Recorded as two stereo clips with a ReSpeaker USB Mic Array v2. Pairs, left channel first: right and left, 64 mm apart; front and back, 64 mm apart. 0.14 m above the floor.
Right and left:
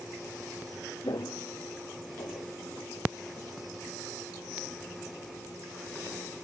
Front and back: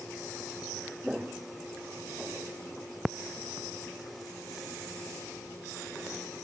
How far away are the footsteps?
About 1.2 m.